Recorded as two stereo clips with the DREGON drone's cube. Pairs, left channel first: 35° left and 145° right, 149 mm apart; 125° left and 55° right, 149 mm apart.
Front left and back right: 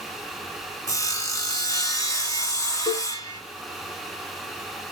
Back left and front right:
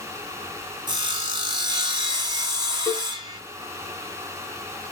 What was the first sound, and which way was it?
Sawing, 20° right.